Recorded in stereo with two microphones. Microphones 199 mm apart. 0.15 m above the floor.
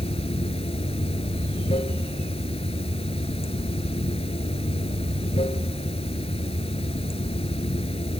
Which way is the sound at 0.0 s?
30° left (ahead or behind).